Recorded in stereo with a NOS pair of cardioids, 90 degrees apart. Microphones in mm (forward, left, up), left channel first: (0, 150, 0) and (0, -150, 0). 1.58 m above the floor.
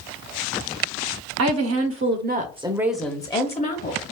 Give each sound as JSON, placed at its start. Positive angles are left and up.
{"t": 1.4, "sound": "a woman speaking", "azimuth_deg": -60, "distance_m": 0.9}